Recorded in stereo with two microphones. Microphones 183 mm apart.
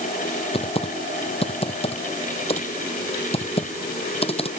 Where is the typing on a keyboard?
35° left (ahead or behind).